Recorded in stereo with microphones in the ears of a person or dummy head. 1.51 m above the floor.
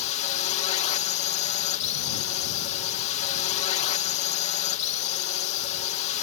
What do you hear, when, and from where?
0.0 s a drone: 40° left (ahead or behind)